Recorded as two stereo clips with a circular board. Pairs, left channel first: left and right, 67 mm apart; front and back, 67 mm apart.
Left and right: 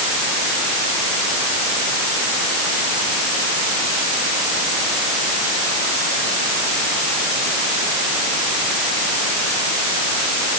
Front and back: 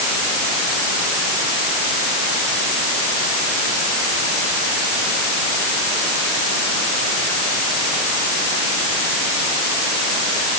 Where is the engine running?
I don't hear an engine running.